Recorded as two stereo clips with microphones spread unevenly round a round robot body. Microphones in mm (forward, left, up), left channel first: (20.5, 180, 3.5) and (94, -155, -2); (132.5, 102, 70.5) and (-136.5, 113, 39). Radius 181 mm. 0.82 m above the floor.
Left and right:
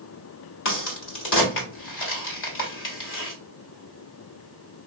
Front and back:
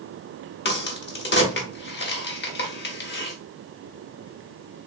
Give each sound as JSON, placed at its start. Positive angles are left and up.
{"t": 0.7, "sound": "a crack", "azimuth_deg": 50, "distance_m": 1.3}